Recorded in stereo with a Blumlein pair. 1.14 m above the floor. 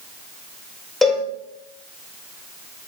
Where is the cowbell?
10° left, 6 m.